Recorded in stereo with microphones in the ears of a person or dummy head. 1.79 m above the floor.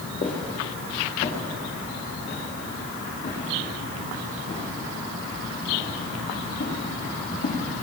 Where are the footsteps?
20° left (ahead or behind), 2.5 m; by 7.6 s 35° left (ahead or behind), 12 m.